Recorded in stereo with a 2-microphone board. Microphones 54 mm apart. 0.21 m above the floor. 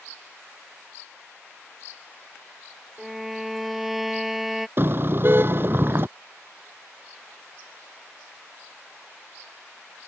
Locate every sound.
3.0 s a violin: 5° right (ahead or behind)
4.8 s a car horn: 45° right (ahead or behind)